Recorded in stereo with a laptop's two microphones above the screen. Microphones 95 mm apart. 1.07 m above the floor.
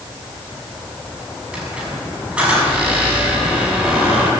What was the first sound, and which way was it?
A squeak, 15° right (ahead or behind).